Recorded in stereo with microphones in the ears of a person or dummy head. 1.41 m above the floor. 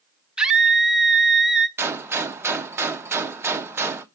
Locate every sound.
0.4 s a scream: 5° right (ahead or behind), 0.7 m
1.8 s a gunshot: 10° right (ahead or behind), 0.6 m